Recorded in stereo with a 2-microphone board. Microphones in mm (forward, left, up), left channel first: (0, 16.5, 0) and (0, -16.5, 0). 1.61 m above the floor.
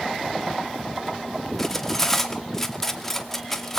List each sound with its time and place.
1.6 s cutlery clinking: 10° left (ahead or behind), 1.8 m